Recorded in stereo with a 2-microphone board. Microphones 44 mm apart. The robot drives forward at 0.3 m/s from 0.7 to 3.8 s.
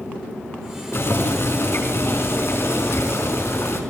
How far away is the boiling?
About 4.5 m.